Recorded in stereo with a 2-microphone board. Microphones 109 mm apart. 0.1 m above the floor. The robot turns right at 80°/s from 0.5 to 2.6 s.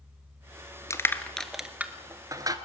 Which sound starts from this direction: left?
Crushing, at 0.9 s.